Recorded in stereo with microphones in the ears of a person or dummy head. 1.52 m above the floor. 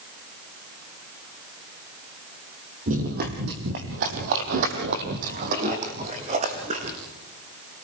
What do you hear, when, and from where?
2.9 s running footsteps: 35° right (ahead or behind), 2 m